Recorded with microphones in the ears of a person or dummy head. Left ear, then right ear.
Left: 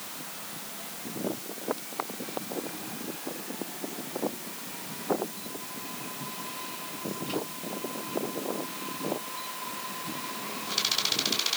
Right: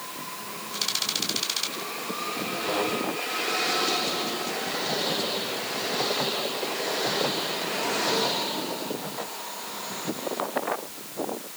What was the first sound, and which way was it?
Only background noise.